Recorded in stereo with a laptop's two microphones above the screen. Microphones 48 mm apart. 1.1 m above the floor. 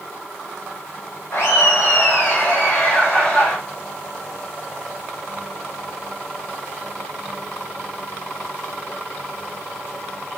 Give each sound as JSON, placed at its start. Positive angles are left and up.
{"t": 1.3, "sound": "laughter", "side_deg": 65, "distance_m": 0.8}